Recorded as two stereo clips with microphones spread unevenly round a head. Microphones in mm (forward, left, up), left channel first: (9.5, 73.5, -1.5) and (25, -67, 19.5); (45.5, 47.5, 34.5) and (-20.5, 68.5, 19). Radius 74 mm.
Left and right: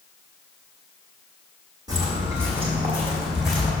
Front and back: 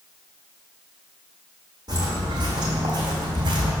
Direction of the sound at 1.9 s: 140° right.